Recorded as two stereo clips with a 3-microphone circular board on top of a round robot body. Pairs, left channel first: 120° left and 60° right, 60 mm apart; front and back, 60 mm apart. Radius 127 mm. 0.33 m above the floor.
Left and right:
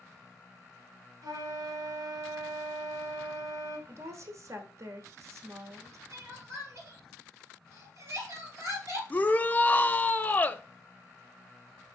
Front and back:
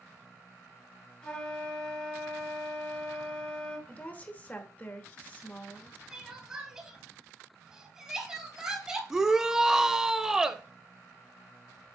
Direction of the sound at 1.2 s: 70° right.